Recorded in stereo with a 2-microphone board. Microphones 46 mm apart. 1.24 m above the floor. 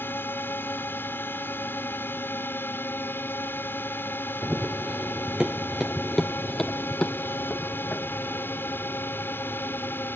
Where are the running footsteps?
40° right (ahead or behind); by 10.2 s 60° left (ahead or behind).